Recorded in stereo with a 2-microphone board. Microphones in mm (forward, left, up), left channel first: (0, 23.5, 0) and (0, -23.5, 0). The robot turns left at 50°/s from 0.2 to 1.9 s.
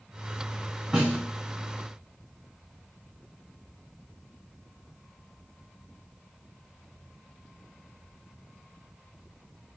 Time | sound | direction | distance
0.9 | a snare drum | 15° right (ahead or behind) | 2 m